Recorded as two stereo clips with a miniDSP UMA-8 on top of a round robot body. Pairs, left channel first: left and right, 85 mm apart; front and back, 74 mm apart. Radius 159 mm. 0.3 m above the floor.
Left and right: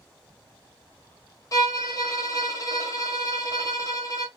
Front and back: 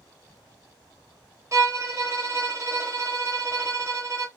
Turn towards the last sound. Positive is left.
turn(degrees=135)